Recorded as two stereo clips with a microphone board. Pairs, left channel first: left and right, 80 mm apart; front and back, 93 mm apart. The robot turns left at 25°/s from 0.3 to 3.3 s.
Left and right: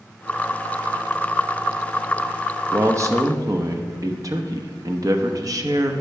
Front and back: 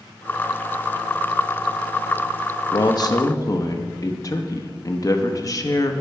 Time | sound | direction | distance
2.7 | a man speaking | 35° right | 0.8 m